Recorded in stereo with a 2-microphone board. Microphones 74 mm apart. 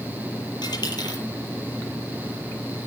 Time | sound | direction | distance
0.6 | a dropped coin | 70° left (ahead or behind) | 8.5 m